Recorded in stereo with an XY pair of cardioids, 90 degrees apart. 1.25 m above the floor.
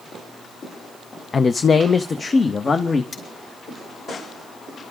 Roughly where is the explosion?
No explosion in this recording.